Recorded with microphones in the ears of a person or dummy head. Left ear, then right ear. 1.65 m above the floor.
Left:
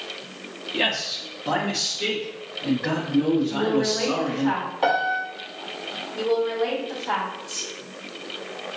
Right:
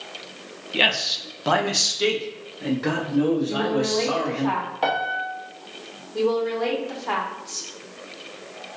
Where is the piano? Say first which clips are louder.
Left 3 dB; 5° right (ahead or behind), 0.9 m.